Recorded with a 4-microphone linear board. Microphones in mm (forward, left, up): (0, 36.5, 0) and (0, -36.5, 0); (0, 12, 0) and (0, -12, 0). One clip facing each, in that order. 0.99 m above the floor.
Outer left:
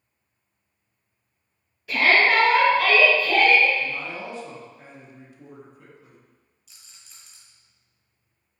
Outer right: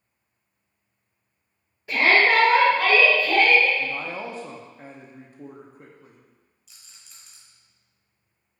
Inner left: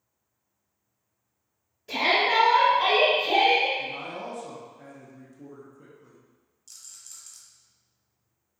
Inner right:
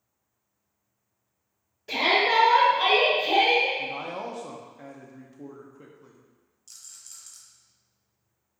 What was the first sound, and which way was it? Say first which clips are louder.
A shout: even, inner right 1 dB; 30° right (ahead or behind).